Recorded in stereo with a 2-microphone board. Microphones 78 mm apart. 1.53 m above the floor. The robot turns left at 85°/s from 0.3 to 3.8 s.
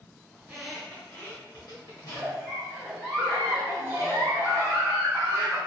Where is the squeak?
20° right (ahead or behind), 0.9 m; by 2.3 s 30° left (ahead or behind), 0.9 m.